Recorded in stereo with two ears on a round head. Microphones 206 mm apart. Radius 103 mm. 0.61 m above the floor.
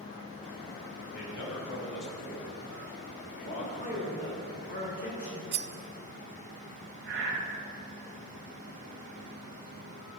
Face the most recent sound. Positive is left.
turn(degrees=-50)  # may be behind; listen again after turning